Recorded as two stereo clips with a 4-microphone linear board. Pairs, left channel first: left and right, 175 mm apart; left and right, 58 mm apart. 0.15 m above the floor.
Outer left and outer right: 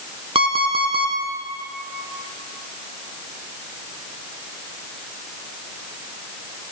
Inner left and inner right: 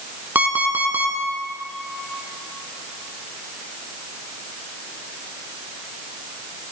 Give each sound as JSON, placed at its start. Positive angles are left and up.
{"t": 0.3, "sound": "an alarm clock", "side_deg": -30, "distance_m": 1.0}